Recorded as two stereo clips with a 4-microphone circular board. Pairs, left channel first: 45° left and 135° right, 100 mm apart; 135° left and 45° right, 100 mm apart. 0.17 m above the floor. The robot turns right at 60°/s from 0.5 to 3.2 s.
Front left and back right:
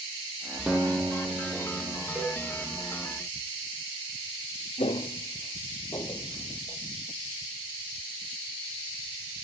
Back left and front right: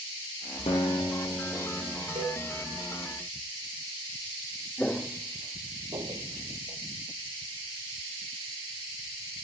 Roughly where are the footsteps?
Ahead left.